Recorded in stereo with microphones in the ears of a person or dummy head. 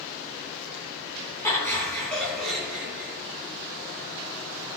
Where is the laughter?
15° left (ahead or behind), 3.5 m; by 3.1 s 10° right (ahead or behind), 4 m.